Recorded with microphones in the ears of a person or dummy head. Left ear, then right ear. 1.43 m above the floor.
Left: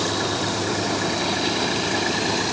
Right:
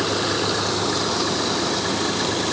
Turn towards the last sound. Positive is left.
No sound to turn to.